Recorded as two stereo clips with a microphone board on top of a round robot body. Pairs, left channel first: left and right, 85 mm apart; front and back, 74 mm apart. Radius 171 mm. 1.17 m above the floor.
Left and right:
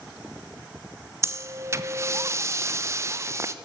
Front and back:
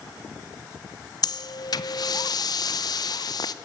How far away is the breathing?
About 0.8 m.